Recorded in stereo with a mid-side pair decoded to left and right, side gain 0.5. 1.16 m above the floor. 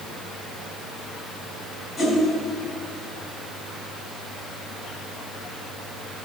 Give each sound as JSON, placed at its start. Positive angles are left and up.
{"t": 2.0, "sound": "a whoosh", "azimuth_deg": 40, "distance_m": 4.5}